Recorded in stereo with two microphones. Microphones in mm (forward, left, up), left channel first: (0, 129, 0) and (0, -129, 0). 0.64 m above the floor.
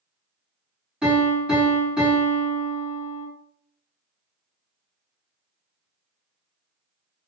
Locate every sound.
1.0 s a piano: 5° right (ahead or behind), 1.8 m